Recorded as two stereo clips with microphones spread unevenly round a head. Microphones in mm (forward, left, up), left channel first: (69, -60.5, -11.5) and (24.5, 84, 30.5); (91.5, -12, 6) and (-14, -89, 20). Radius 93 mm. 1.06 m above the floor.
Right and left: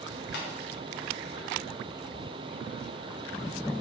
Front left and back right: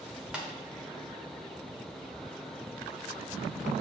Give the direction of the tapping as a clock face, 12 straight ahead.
2 o'clock.